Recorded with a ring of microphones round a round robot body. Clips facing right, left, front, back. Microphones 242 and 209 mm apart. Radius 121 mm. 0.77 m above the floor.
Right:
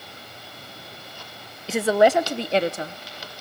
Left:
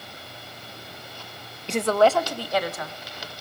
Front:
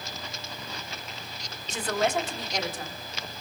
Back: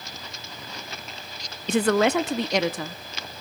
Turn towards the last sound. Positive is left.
turn(degrees=-150)